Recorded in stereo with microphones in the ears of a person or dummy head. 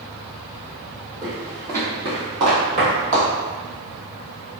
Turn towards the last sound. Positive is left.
turn(degrees=-40)  # may be behind; listen again after turning